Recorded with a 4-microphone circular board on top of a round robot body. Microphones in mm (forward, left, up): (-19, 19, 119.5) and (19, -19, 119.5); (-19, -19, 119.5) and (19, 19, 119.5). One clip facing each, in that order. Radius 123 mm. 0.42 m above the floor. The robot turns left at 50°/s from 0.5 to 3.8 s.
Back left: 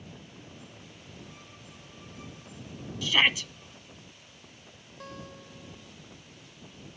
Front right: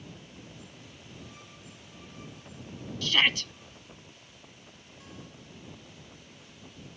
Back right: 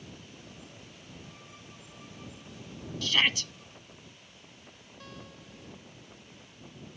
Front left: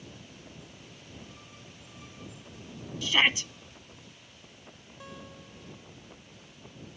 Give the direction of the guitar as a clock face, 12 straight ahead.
8 o'clock.